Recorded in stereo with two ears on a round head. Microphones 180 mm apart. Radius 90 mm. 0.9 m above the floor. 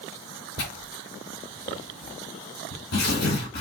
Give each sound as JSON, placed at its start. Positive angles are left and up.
{"t": 0.6, "sound": "tearing paper", "side_deg": 80, "distance_m": 4.0}